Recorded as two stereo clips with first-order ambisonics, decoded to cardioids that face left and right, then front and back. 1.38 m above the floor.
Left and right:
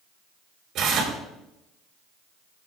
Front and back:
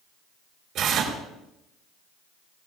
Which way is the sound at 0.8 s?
135° right.